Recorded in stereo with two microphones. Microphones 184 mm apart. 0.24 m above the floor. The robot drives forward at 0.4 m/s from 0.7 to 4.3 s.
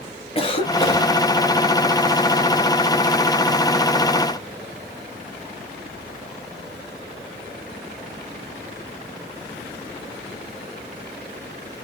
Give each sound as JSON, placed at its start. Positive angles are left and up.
{"t": 0.3, "sound": "a cough", "side_deg": 30, "distance_m": 1.0}